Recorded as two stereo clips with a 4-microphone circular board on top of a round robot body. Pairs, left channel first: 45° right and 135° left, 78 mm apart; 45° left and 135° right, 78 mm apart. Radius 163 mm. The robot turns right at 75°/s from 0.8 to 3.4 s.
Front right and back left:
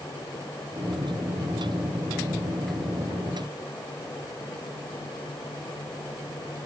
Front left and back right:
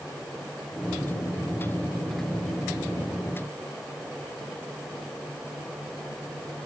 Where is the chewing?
I don't hear chewing.